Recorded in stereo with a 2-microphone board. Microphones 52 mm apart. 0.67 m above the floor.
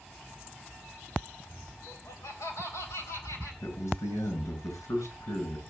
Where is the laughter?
70° left (ahead or behind), 3.5 m; by 3.5 s 80° left, 5.5 m.